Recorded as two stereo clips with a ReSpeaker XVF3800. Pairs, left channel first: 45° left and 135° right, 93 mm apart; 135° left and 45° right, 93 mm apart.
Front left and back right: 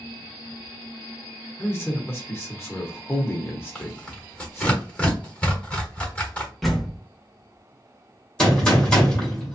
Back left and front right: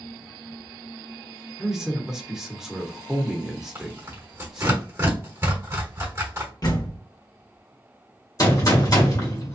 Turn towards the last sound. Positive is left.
turn(degrees=120)